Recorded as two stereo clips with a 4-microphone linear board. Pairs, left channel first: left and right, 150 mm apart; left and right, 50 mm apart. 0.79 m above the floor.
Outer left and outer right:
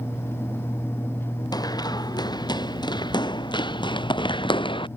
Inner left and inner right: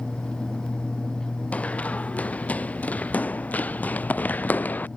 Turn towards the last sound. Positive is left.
turn(degrees=35)  # may be behind; listen again after turning